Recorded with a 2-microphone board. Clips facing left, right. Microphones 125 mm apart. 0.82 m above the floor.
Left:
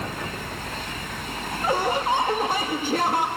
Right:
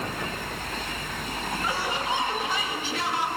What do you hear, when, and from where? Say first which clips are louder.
1.6 s laughter: left 8 dB; 50° left (ahead or behind), 1.1 m